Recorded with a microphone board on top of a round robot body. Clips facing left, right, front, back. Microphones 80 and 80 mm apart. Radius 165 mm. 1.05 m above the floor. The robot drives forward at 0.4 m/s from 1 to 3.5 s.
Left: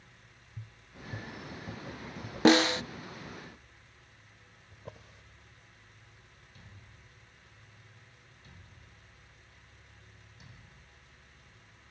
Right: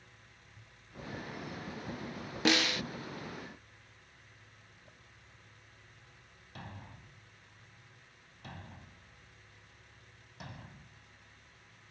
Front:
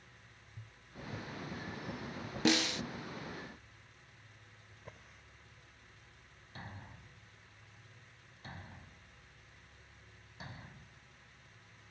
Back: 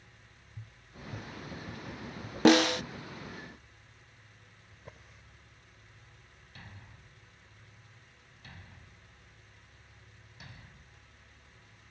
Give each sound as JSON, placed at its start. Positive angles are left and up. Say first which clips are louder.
{"t": 0.6, "sound": "tapping", "louder": "even, back 1 dB", "azimuth_deg": 105}
{"t": 2.5, "sound": "a snare drum", "louder": "left 8 dB, back 10 dB", "azimuth_deg": 145}
{"t": 4.7, "sound": "a drawer", "louder": "left 10 dB, back 2 dB", "azimuth_deg": 90}
{"t": 6.5, "sound": "a thud", "louder": "right 12 dB, front 4 dB", "azimuth_deg": -60}